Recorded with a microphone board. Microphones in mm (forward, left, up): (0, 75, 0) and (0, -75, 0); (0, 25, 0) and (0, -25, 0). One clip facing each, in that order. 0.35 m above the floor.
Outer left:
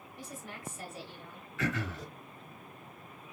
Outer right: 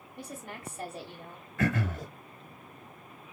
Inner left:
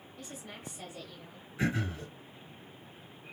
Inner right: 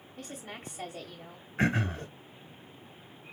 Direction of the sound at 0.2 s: 40° right (ahead or behind).